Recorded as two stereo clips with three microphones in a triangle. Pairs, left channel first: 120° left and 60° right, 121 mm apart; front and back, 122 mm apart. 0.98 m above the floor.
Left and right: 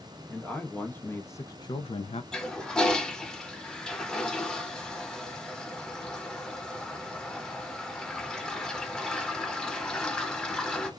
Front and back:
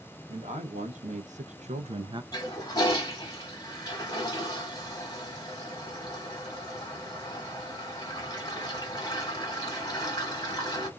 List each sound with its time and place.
0.3 s a man speaking: 155° right, 1.2 m; by 2.2 s 135° left, 0.5 m
2.3 s a toilet flushing: 40° left, 1.0 m